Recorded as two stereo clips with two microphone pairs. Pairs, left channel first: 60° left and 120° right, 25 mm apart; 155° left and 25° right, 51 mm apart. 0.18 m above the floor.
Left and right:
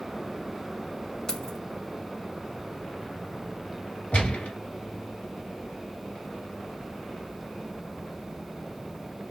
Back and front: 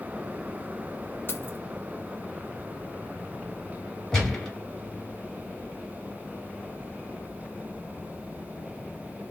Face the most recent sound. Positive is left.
turn(degrees=80)